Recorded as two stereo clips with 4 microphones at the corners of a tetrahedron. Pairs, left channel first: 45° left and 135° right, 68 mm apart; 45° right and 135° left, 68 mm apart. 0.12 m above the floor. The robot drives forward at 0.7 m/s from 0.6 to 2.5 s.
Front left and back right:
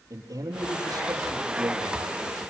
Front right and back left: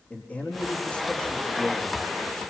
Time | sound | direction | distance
0.1 | a man speaking | 115° right | 5 m